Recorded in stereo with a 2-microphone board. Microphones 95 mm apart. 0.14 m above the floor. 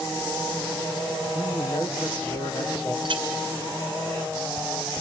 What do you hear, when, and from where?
1.4 s a man speaking: 50° left (ahead or behind), 2.5 m
3.0 s a clink: 60° right (ahead or behind), 1.3 m